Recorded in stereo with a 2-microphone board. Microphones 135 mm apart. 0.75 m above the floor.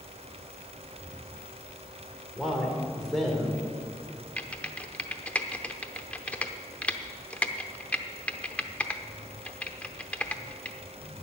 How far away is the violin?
I don't hear a violin.